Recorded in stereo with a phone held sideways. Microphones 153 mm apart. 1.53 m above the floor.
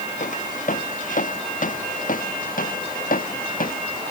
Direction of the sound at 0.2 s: 55° left (ahead or behind).